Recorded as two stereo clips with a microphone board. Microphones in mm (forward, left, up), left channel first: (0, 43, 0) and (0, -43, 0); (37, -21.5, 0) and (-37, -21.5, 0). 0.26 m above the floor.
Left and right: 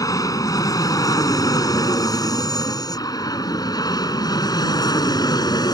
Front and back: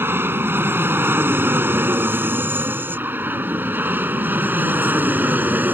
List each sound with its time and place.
0.0 s an aircraft: 125° left; by 5.8 s 120° left